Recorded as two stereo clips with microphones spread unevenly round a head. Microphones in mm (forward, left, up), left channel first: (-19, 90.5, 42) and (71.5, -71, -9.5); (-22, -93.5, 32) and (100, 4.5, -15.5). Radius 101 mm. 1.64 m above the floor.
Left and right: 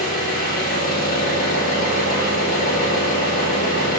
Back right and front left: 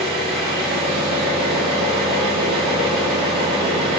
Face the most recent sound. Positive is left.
turn(degrees=140)